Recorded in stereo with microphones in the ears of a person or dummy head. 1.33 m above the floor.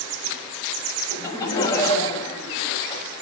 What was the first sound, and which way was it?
Laughter, 20° left (ahead or behind).